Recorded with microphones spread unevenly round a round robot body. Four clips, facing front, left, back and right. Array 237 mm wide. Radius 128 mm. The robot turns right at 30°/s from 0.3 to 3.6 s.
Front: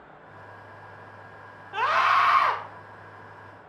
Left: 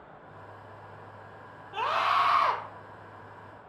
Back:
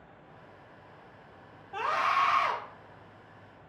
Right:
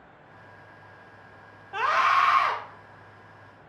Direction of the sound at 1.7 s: 5° right.